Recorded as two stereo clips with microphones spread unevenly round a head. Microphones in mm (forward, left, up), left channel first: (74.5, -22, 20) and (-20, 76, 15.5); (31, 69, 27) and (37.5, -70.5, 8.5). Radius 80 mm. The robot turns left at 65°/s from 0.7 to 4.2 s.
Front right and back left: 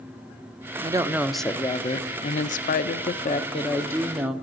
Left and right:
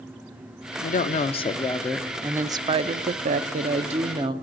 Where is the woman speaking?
80° left, 0.6 m; by 4.3 s 140° right, 0.6 m.